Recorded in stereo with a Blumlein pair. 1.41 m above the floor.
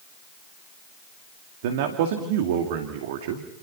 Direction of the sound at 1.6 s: 50° right.